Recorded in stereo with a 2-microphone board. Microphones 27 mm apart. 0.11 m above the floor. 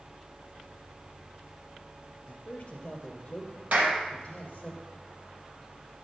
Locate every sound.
2.3 s a man speaking: 40° left (ahead or behind), 2 m; by 4.7 s 30° left (ahead or behind), 4 m
3.7 s a clap: 65° right (ahead or behind), 3 m